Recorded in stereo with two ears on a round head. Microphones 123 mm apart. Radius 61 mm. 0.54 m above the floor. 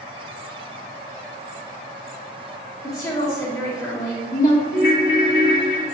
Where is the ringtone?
65° left (ahead or behind), 1.3 m.